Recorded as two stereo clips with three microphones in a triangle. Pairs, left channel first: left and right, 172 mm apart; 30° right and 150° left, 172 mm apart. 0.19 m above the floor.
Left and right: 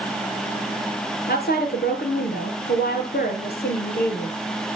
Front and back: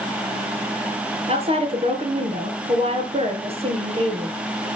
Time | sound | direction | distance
1.3 | a woman speaking | 100° left | 3.5 m